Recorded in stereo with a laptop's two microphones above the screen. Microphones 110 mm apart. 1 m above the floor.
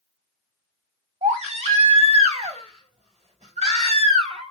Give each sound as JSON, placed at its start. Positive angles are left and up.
{"t": 1.2, "sound": "a baby crying", "side_deg": -80, "distance_m": 1.9}